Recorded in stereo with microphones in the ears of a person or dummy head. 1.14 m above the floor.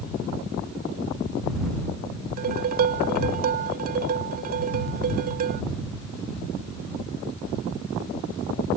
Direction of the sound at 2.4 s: 45° right (ahead or behind).